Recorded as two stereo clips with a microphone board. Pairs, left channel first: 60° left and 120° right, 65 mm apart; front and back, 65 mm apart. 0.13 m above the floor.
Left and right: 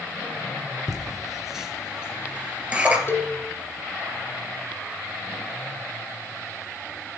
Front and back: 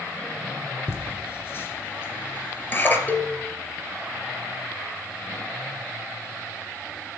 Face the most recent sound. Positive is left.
turn(degrees=45)